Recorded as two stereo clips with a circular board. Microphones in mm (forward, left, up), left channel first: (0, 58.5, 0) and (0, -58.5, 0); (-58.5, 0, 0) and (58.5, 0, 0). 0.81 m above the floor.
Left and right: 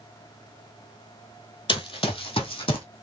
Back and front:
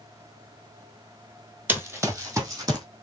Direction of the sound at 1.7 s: 70° left.